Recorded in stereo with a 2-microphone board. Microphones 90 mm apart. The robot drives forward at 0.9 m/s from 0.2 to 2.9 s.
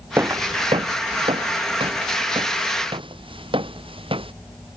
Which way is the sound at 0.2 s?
30° right (ahead or behind).